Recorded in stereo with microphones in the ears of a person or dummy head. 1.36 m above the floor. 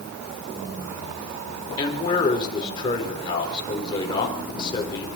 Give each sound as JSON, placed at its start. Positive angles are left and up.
{"t": 1.8, "sound": "a man speaking", "side_deg": 25, "distance_m": 4.0}